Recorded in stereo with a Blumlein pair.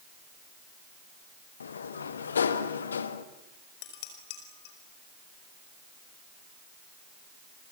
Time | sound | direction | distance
1.6 | a sliding door | 70° left | 1.4 m
3.8 | dishes clattering | 45° left | 5.5 m